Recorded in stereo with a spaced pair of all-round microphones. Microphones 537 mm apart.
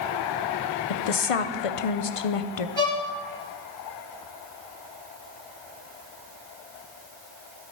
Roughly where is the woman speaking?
Left.